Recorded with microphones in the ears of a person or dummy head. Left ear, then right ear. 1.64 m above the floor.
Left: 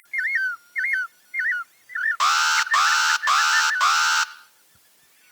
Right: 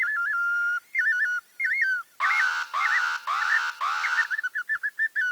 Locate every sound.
2.2 s an alarm: 90° left, 1.4 m